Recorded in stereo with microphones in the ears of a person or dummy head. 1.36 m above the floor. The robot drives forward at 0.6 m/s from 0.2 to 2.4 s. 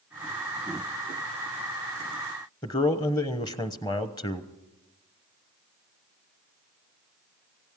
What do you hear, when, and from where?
2.6 s a man speaking: 20° left (ahead or behind), 0.9 m